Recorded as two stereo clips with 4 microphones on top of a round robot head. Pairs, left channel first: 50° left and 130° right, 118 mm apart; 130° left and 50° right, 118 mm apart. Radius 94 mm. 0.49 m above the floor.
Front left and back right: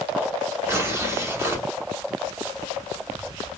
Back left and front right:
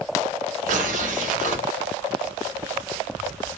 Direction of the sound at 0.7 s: 60° right.